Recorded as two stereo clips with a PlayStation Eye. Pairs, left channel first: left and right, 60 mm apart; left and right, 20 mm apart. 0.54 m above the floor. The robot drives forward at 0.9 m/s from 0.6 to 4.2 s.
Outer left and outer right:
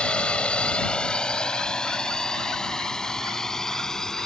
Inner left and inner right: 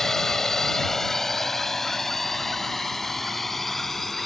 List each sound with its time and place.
0.0 s a drone: 20° left (ahead or behind); by 4.3 s 10° left (ahead or behind)